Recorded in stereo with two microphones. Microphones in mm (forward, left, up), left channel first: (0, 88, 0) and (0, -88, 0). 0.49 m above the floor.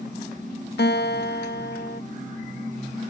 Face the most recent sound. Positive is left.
turn(degrees=70)  # may be behind; listen again after turning